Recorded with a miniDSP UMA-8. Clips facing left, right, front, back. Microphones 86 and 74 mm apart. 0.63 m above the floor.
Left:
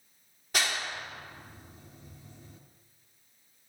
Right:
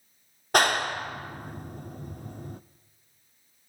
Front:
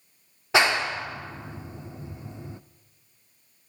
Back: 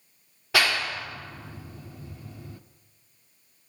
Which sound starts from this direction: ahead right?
A clap, at 0.5 s.